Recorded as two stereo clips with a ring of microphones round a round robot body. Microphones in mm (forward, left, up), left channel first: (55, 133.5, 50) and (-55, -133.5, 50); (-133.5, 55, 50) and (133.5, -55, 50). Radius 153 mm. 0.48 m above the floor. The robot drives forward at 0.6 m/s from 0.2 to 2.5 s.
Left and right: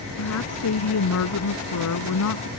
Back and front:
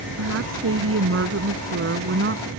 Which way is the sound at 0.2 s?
25° left.